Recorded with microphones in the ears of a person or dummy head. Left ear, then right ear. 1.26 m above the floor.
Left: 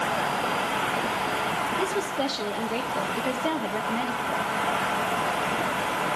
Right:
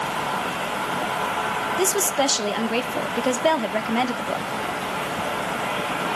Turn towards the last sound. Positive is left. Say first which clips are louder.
# right 5 dB
turn(degrees=-50)  # may be behind; listen again after turning